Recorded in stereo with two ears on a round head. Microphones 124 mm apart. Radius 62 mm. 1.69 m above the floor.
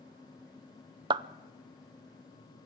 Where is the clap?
30° right (ahead or behind), 0.7 m.